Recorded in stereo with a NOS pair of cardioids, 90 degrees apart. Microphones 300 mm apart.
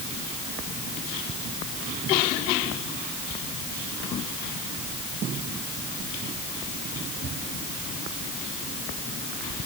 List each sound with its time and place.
Only background noise.